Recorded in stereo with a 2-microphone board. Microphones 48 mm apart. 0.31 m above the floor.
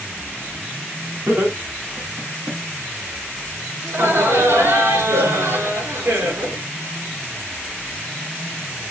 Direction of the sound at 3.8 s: 65° right (ahead or behind).